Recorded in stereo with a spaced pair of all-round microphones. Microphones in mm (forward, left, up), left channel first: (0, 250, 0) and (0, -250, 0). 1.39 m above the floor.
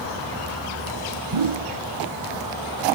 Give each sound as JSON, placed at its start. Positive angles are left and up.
{"t": 1.3, "sound": "a whoosh", "side_deg": -75, "distance_m": 0.8}